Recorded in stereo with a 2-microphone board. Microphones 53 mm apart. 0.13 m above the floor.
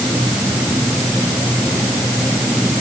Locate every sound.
Only background noise.